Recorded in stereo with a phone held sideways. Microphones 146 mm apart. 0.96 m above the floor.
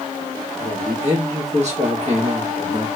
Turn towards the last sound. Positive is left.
turn(degrees=-50)  # may be behind; listen again after turning